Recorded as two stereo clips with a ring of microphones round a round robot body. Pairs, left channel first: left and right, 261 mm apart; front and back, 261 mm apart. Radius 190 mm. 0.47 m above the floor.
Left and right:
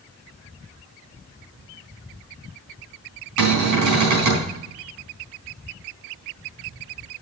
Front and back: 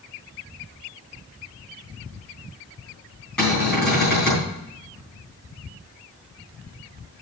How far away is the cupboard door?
About 4 m.